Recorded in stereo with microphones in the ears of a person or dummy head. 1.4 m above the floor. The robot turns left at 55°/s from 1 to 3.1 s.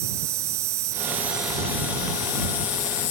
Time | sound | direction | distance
0.0 | an insect | 155° right | ?